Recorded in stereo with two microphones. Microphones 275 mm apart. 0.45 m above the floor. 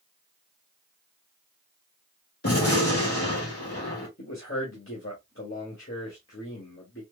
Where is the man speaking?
50° left (ahead or behind), 1.6 m.